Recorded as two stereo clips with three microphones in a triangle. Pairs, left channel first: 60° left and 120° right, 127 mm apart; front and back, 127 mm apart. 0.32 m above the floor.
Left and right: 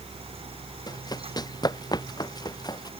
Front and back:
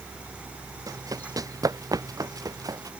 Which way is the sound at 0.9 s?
115° left.